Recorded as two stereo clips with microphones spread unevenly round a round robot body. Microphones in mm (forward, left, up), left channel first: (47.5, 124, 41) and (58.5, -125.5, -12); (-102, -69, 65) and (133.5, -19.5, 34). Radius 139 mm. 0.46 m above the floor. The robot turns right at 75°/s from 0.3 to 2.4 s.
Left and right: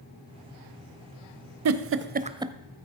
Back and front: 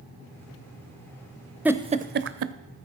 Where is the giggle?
70° right, 0.8 m; by 2.5 s 15° right, 0.8 m.